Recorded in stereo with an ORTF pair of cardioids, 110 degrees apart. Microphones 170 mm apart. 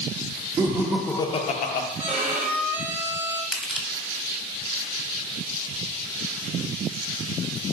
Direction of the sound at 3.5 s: Straight ahead.